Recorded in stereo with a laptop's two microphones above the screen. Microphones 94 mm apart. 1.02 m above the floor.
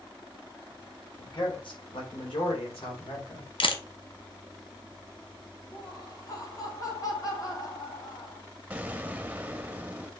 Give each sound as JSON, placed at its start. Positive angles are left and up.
{"t": 1.2, "sound": "a man speaking", "side_deg": 55, "distance_m": 3.0}
{"t": 3.6, "sound": "a camera shutter", "side_deg": 65, "distance_m": 1.0}
{"t": 5.7, "sound": "laughter", "side_deg": 40, "distance_m": 2.5}
{"t": 8.7, "sound": "an explosion", "side_deg": -15, "distance_m": 0.6}